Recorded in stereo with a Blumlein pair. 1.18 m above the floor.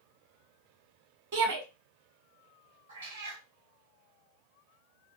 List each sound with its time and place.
1.3 s a shout: 55° right, 1.2 m
2.9 s a cat meowing: 70° right, 1.1 m